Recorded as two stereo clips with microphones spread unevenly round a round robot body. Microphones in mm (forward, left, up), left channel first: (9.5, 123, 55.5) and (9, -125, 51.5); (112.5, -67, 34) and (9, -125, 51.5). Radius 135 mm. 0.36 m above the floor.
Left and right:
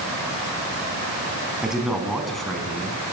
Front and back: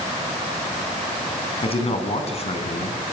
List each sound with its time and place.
1.6 s a man speaking: 5° right, 3.5 m; by 3.0 s 5° left, 4.5 m